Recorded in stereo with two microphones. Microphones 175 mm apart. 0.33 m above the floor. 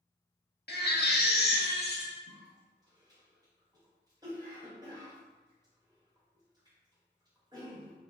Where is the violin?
I don't hear a violin.